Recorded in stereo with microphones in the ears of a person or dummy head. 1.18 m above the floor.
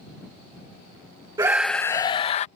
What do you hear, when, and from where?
1.4 s a scream: 20° right (ahead or behind); by 2.5 s 40° left (ahead or behind)